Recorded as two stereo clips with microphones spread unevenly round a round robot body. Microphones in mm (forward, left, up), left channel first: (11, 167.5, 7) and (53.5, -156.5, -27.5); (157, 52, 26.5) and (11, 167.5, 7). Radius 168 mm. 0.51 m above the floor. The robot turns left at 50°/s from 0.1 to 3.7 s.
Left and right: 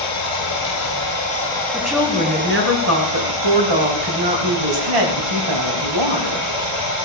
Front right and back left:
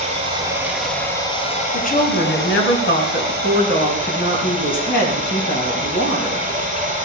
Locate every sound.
0.0 s running water: 90° left, 8.5 m; by 7.0 s 90° right, 8.5 m
1.7 s a woman speaking: 15° left, 4.5 m; by 6.5 s 85° right, 4.5 m